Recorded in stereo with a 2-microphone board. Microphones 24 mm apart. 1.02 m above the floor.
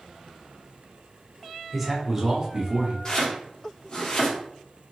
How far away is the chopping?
About 1.2 m.